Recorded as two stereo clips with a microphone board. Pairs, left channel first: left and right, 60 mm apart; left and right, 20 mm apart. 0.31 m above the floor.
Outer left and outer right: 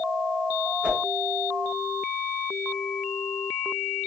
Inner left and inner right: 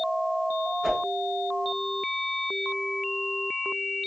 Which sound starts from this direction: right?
A whoosh, at 0.8 s.